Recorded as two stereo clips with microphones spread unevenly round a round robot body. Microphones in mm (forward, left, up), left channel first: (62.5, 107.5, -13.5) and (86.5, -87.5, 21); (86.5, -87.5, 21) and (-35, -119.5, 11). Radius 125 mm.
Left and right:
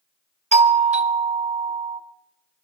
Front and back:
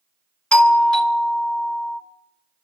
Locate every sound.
0.5 s a doorbell: 65° right, 1.3 m